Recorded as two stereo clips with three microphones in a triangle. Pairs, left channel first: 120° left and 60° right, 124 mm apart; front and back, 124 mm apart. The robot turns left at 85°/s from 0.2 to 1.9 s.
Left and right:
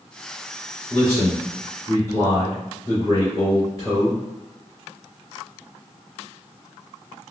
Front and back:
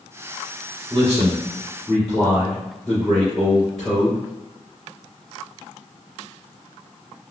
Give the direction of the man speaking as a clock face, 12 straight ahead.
6 o'clock.